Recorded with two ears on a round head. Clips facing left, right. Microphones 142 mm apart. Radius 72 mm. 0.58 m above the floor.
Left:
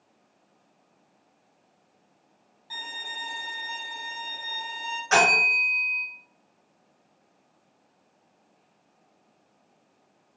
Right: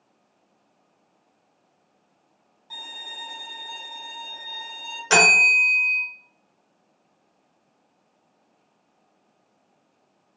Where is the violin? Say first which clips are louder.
Left 2 dB; 5° left (ahead or behind), 1.1 m.